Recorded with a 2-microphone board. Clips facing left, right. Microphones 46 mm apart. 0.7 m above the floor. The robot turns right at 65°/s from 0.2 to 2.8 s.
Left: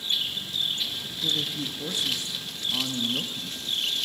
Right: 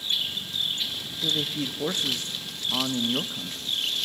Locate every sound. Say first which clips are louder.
1.1 s a man speaking: right 2 dB; 160° right, 0.6 m; by 3.8 s 50° right, 0.6 m